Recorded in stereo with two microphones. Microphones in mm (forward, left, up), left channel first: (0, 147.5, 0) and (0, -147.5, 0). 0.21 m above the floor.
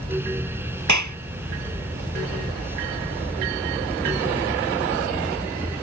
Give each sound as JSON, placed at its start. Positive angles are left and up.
{"t": 0.9, "sound": "a clap", "side_deg": -75}